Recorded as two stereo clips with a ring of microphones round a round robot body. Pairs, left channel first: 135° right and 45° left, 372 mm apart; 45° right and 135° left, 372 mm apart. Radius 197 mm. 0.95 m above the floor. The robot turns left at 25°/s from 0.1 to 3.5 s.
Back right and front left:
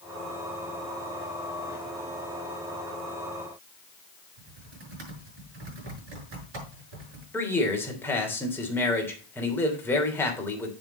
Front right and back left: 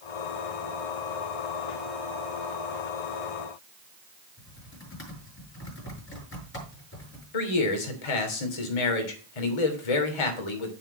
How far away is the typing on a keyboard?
About 6.5 m.